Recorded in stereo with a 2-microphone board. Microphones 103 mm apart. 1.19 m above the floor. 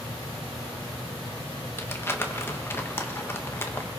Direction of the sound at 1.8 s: 25° left (ahead or behind).